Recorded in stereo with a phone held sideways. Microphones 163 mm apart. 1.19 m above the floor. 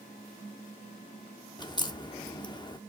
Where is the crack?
25° left (ahead or behind), 1.0 m.